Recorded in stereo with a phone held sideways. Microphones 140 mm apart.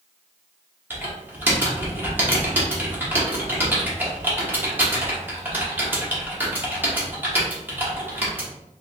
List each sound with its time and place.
0.9 s typing on a keyboard: 15° right (ahead or behind), 1.2 m